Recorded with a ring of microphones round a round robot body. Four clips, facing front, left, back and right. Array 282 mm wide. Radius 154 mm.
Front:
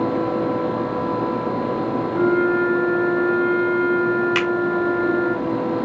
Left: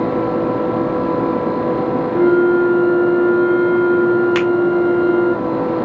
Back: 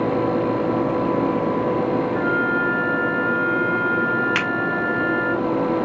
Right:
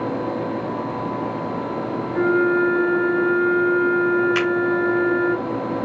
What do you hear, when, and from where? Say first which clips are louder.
2.1 s a flute: left 5 dB, front 3 dB; 160° left, 1.3 m
4.3 s a finger snap: left 5 dB, front 3 dB; 105° left, 2 m